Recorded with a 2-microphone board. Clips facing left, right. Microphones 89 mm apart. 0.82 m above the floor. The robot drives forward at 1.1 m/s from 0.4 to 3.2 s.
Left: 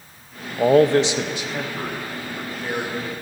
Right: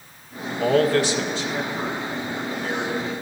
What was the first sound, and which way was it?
A man speaking, 30° left (ahead or behind).